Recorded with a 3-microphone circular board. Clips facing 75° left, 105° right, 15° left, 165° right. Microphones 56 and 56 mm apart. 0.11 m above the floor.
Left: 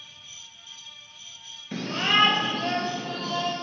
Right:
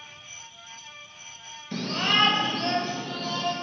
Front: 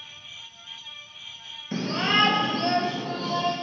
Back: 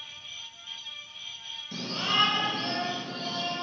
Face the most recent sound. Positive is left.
turn(degrees=0)